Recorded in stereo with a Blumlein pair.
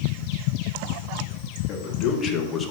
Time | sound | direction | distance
1.7 | a man speaking | 35° left | 1.7 m